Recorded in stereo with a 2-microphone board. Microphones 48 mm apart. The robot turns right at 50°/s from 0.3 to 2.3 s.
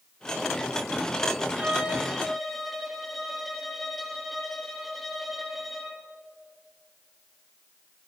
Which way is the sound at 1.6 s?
35° right.